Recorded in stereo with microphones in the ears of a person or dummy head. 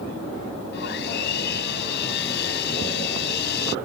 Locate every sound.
0.7 s sawing: 60° left (ahead or behind)